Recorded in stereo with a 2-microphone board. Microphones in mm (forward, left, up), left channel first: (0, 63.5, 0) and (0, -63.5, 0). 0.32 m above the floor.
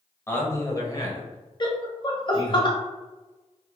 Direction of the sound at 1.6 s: 40° left (ahead or behind).